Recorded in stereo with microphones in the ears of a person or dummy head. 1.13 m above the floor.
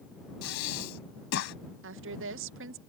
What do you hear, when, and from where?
0.4 s breathing: 70° left (ahead or behind)
1.8 s a woman speaking: 65° right (ahead or behind)